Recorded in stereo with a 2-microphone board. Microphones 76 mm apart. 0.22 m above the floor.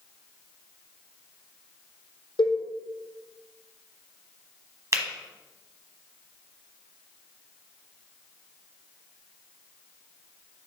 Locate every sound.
2.4 s a cowbell: 80° left, 1.6 m
4.9 s a finger snap: 40° right (ahead or behind), 1.1 m